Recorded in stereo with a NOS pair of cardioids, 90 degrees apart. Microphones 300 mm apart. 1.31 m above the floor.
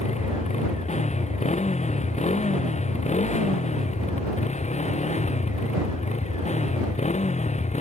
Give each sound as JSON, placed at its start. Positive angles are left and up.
{"t": 0.0, "sound": "a motorcycle", "azimuth_deg": 25}